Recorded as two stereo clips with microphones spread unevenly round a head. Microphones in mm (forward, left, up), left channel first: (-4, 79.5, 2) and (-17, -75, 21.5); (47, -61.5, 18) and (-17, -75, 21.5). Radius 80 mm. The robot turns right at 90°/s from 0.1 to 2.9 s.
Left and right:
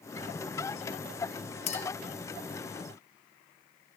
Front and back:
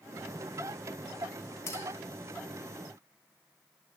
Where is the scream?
No scream in this recording.